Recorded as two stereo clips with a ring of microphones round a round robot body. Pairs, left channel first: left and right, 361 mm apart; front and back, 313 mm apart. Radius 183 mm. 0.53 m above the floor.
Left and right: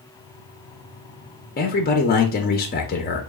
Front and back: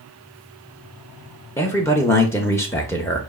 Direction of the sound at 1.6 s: 70° left.